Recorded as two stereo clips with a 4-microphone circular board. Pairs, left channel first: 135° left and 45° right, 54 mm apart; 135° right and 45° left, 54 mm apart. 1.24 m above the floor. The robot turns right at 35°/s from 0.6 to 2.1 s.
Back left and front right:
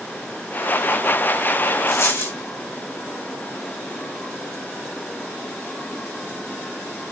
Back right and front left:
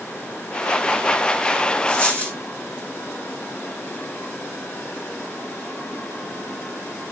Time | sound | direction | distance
1.9 | a dropped coin | 150° left | 2.5 m